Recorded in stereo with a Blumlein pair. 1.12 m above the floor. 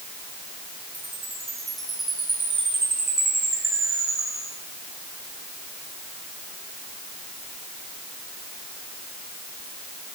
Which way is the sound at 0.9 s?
15° right.